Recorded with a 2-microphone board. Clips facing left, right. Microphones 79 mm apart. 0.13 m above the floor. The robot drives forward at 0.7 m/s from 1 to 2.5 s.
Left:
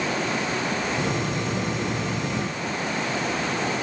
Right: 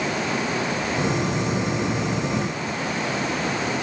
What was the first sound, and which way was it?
Only background noise.